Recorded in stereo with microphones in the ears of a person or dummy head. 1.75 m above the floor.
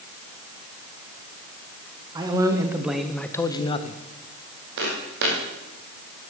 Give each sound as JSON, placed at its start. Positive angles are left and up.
{"t": 2.1, "sound": "a man speaking", "side_deg": -25, "distance_m": 1.2}
{"t": 4.8, "sound": "footsteps", "side_deg": -60, "distance_m": 3.5}